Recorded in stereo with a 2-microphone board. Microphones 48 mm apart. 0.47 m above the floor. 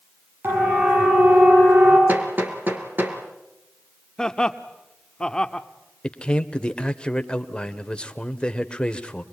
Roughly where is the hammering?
Right.